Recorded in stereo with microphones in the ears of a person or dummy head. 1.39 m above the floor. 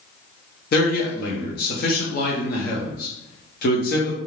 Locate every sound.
0.7 s a man speaking: 45° left (ahead or behind), 0.9 m